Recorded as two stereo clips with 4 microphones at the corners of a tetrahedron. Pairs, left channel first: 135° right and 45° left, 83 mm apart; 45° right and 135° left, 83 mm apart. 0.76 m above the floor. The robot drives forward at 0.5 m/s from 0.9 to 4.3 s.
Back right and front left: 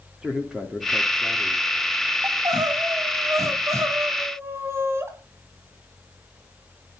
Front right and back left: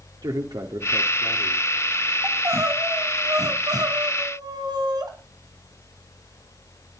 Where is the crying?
80° left, 2.5 m; by 5.1 s 100° left, 3 m.